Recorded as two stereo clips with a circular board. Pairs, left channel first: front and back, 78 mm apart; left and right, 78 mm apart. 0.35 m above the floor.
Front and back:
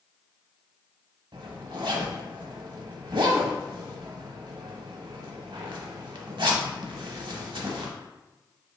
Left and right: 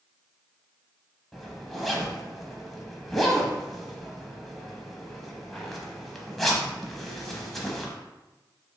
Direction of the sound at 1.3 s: 175° left.